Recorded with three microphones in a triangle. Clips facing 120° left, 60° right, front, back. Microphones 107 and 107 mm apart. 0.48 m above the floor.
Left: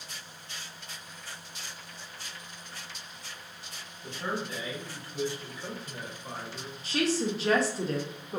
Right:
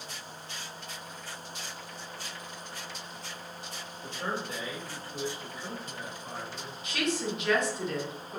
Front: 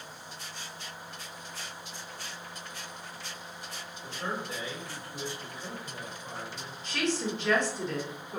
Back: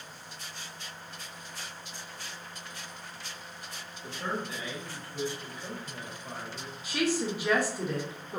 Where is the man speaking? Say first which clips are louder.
Left 1 dB, back 1 dB; 60° right, 1.9 m; by 6.7 s 60° left, 1.5 m.